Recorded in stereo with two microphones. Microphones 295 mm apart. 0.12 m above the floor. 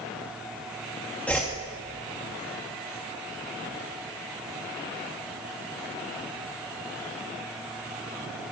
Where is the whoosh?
5° left (ahead or behind), 2 m.